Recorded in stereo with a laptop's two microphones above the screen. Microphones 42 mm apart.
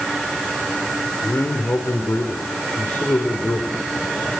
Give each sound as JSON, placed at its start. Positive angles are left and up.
{"t": 1.2, "sound": "a man speaking", "side_deg": 65, "distance_m": 3.0}